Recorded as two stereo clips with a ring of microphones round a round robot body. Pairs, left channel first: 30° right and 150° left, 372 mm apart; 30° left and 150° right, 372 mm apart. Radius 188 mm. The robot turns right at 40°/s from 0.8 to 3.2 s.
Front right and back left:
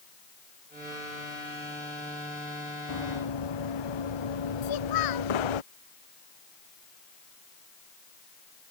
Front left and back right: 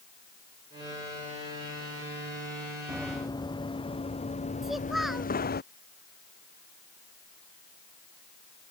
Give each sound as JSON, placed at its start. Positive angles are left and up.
{"t": 2.9, "sound": "running footsteps", "azimuth_deg": -65}
{"t": 4.6, "sound": "a child speaking", "azimuth_deg": -60}